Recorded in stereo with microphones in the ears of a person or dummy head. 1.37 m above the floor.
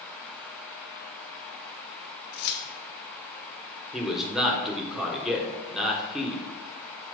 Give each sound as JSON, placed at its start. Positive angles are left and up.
{"t": 2.3, "sound": "keys jangling", "side_deg": 60, "distance_m": 1.1}
{"t": 3.9, "sound": "a man speaking", "side_deg": -10, "distance_m": 1.2}